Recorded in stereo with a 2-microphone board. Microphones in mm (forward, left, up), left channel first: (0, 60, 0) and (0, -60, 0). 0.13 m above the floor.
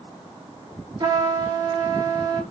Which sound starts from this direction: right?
A trumpet, at 1.0 s.